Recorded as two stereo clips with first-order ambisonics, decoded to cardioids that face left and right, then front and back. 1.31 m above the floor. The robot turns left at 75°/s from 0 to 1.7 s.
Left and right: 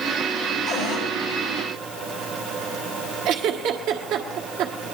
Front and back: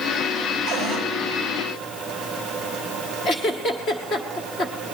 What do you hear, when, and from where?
0.7 s a cupboard door: 135° left, 8.5 m; by 1.1 s 105° left, 8.5 m
3.2 s a giggle: 65° right, 1.5 m